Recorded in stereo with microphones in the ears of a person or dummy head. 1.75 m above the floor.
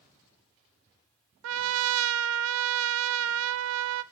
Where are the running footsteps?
No running footsteps in this recording.